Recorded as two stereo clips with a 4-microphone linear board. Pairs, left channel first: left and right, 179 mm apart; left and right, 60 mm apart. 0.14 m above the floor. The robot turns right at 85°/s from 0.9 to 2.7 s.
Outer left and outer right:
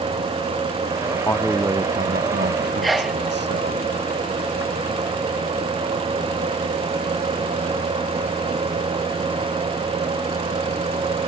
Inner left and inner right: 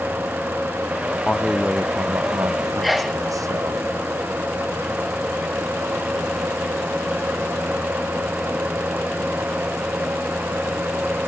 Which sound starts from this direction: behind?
A man speaking, at 1.2 s.